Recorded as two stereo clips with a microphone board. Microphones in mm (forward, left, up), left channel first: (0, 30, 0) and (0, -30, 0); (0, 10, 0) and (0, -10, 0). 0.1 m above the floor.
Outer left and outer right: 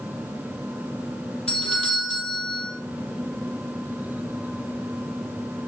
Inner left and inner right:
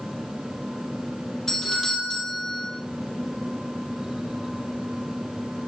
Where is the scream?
I don't hear a scream.